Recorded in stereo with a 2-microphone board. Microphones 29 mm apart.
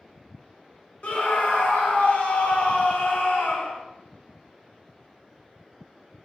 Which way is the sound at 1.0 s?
60° left (ahead or behind).